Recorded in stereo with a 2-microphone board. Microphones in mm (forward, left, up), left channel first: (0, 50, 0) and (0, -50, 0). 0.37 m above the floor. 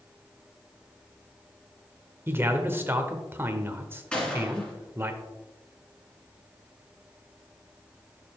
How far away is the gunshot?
About 2.5 m.